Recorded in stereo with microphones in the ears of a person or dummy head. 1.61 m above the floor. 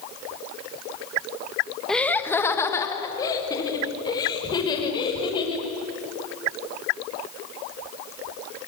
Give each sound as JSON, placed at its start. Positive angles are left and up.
{"t": 1.9, "sound": "laughter", "side_deg": 0, "distance_m": 1.4}